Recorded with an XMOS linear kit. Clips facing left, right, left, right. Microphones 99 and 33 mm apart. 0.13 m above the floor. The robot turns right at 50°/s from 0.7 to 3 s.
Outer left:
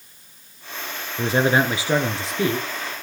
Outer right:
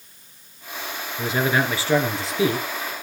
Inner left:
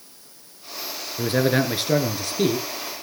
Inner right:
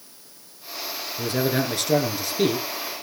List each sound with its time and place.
1.2 s a man speaking: 125° left, 2 m; by 2.6 s 160° right, 2 m